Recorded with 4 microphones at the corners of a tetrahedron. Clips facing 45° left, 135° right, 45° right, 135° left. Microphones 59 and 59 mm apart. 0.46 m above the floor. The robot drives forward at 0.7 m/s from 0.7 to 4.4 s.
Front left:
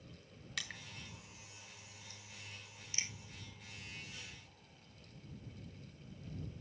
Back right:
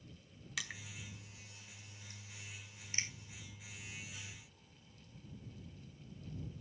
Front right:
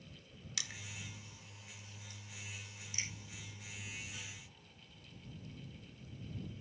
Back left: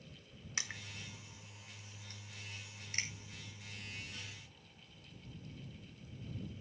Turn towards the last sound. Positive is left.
turn(degrees=175)